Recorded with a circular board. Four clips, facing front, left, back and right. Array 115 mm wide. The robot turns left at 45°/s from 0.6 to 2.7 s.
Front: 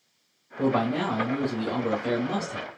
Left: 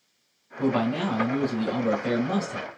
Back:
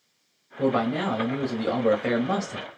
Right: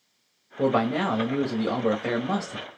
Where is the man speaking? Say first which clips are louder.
Right 2 dB, back 1 dB; 85° right, 1.3 m; by 2.7 s 175° right, 1.3 m.